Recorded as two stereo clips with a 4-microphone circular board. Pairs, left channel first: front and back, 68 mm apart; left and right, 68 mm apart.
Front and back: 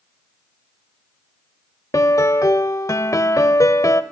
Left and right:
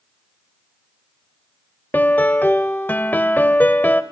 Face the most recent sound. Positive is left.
turn(degrees=30)